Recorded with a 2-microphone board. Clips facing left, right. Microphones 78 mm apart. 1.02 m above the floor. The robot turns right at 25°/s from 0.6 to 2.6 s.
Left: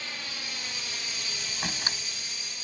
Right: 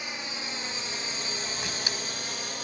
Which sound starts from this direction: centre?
A drone, at 0.0 s.